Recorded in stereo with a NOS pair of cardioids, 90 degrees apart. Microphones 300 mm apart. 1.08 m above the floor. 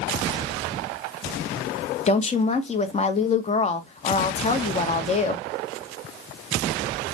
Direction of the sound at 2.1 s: 25° left.